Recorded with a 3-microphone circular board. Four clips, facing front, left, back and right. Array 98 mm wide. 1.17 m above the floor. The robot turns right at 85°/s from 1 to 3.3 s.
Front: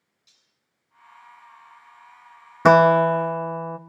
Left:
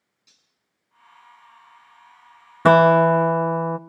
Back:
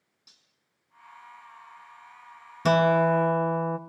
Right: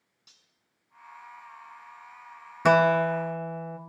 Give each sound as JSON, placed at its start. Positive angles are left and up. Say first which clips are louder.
{"t": 0.3, "sound": "cutlery clinking", "louder": "right 1 dB, back 4 dB", "azimuth_deg": -130, "distance_m": 7.0}
{"t": 2.6, "sound": "a guitar", "louder": "left 7 dB, front 6 dB", "azimuth_deg": 40, "distance_m": 0.9}